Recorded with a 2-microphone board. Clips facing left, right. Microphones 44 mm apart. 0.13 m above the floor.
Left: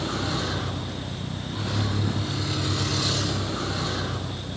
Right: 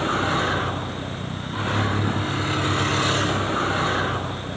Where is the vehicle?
40° right (ahead or behind).